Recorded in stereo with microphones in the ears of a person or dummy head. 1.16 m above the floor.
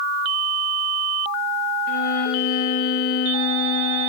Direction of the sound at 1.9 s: 50° left (ahead or behind).